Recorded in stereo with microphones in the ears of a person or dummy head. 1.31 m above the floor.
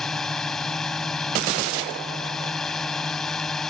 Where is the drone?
Centre (ahead or behind).